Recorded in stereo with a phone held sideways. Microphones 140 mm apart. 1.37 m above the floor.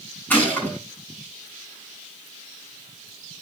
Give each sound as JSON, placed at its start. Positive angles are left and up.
{"t": 0.3, "sound": "a gunshot", "side_deg": 10, "distance_m": 8.0}